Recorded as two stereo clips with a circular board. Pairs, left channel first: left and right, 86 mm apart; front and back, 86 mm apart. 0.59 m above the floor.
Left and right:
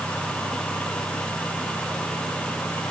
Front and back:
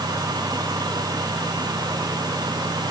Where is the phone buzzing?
No phone buzzing in this recording.